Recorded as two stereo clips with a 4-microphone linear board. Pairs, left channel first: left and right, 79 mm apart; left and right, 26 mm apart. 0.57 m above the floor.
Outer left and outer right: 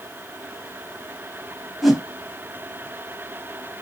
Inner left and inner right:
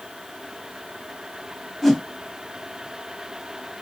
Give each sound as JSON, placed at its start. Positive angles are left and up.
{"t": 1.8, "sound": "a whoosh", "side_deg": 0, "distance_m": 1.1}